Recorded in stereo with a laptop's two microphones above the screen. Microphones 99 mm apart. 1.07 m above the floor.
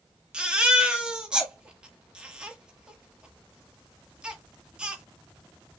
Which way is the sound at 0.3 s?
10° right (ahead or behind).